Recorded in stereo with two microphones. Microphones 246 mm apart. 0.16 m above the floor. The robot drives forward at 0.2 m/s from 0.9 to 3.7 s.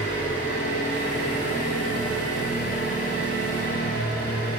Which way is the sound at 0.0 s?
80° left.